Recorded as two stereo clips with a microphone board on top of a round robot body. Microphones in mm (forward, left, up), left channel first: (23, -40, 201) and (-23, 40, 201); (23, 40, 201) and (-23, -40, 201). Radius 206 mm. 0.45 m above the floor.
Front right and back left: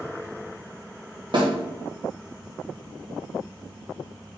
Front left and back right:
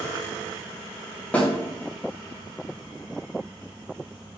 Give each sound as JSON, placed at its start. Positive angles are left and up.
{"t": 1.3, "sound": "a snare drum", "azimuth_deg": 135, "distance_m": 1.3}